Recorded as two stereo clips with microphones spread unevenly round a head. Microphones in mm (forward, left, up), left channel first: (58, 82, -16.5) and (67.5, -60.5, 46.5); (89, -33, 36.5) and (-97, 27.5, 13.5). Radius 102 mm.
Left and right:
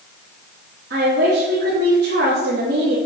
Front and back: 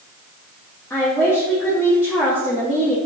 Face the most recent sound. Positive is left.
turn(degrees=-95)